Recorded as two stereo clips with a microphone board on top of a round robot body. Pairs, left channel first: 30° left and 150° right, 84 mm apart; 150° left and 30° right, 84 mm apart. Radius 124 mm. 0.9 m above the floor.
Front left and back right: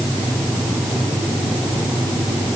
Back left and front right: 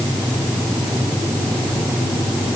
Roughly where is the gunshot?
No gunshot in this recording.